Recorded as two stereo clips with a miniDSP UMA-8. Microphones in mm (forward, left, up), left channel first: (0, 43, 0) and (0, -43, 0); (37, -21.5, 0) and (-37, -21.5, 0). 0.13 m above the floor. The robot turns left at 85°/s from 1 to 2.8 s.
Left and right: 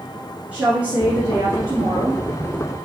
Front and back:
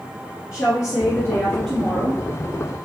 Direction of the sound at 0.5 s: 20° right.